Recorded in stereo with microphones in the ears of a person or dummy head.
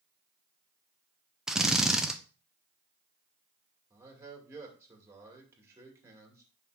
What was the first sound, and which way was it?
A drill, 5° right (ahead or behind).